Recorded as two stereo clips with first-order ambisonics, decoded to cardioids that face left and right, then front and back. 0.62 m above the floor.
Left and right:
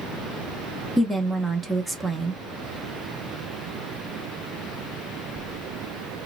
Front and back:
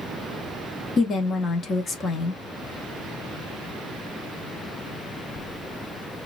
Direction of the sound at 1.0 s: 5° right.